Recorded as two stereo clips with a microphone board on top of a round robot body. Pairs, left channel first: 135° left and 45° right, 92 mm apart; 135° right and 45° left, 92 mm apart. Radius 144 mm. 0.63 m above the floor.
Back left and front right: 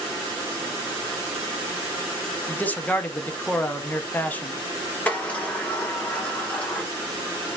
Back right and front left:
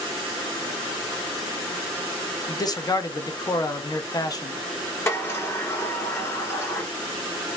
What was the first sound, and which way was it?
A man speaking, 160° right.